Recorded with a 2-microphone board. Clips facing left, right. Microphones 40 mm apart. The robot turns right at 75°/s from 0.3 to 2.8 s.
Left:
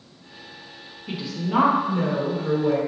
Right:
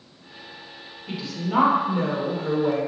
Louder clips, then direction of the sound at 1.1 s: Left 2 dB; 10° left (ahead or behind).